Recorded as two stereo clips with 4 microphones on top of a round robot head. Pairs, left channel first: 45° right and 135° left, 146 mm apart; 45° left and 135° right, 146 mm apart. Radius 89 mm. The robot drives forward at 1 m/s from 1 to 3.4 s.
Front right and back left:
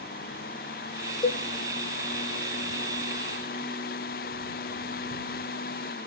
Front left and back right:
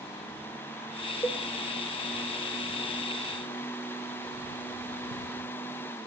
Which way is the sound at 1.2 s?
15° right.